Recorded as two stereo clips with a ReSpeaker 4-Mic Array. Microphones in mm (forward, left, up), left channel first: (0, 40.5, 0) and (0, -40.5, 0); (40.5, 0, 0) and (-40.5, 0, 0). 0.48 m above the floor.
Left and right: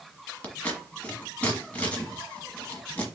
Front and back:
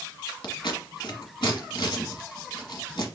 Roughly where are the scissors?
Ahead.